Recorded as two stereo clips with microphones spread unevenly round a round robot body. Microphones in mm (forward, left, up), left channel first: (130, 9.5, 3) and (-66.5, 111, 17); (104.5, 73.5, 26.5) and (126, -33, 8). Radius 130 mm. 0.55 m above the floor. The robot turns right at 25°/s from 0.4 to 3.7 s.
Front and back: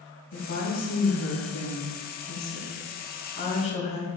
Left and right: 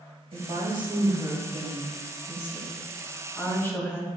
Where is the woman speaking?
50° right, 3 m; by 4.1 s 35° left, 3 m.